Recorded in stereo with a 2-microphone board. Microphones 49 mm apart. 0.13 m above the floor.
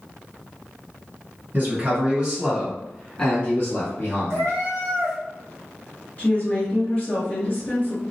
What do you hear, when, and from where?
1.5 s a man speaking: 40° right (ahead or behind), 1.5 m; by 4.5 s 45° left (ahead or behind), 1.6 m
4.3 s a cat meowing: 70° right (ahead or behind), 1.2 m
6.2 s a woman speaking: 30° left (ahead or behind), 1.8 m